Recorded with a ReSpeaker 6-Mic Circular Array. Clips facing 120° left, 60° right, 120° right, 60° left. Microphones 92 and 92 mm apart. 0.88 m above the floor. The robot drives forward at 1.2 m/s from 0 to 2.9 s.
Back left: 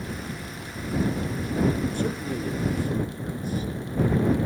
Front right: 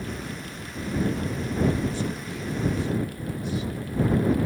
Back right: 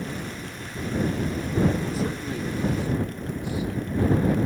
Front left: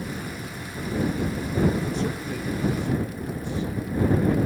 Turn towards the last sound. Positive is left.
turn(degrees=160)